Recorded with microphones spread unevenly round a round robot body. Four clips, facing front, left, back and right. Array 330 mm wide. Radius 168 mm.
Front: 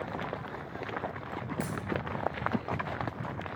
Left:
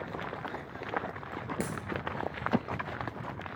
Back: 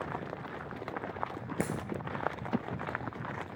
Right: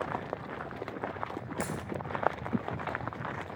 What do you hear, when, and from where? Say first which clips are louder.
1.6 s a dropped coin: right 1 dB, back 4 dB; 160° left, 0.5 m